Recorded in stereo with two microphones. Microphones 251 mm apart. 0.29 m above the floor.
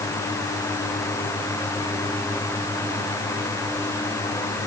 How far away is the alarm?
No alarm in this recording.